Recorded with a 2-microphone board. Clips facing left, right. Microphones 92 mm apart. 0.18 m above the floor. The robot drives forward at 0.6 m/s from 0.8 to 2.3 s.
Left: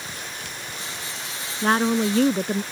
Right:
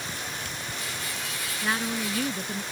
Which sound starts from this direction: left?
A woman speaking, at 1.6 s.